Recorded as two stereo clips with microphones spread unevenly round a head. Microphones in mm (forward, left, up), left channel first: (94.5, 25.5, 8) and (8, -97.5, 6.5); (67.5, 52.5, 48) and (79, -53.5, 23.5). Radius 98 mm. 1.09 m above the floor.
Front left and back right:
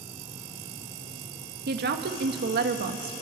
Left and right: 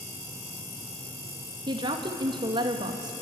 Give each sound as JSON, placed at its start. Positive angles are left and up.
{"t": 1.7, "sound": "a woman speaking", "azimuth_deg": -130, "distance_m": 1.8}